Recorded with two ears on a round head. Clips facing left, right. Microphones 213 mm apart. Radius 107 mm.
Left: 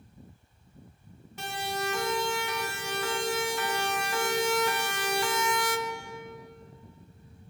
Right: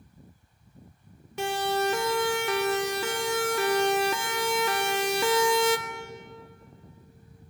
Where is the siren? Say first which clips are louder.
Right 8 dB; 60° right (ahead or behind), 3.5 m; by 5.8 s 65° right (ahead or behind), 1.3 m.